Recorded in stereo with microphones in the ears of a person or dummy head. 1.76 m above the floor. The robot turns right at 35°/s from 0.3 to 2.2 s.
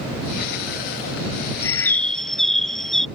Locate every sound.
1.6 s a bird: 15° left (ahead or behind); by 3.1 s centre (ahead or behind)